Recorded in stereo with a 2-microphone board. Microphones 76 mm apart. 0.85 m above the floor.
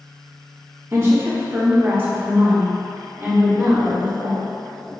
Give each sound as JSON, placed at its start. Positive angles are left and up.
{"t": 0.9, "sound": "a woman speaking", "side_deg": -35, "distance_m": 1.0}